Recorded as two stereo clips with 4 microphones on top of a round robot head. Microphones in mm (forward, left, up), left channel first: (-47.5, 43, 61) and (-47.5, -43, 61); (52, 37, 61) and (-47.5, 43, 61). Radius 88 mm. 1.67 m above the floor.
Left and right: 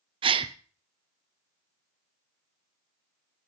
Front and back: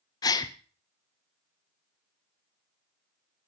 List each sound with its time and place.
0.2 s a gasp: 60° right, 0.8 m